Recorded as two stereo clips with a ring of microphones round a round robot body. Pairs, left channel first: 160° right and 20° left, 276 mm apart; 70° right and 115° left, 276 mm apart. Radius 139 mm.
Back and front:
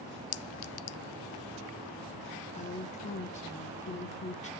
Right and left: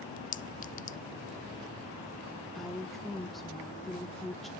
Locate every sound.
0.3 s a clink: 130° right, 0.5 m
2.5 s a woman speaking: 155° right, 0.9 m